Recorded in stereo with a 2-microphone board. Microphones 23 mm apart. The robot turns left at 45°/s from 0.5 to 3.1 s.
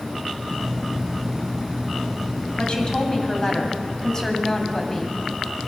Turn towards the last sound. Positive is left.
turn(degrees=25)  # may be behind; listen again after turning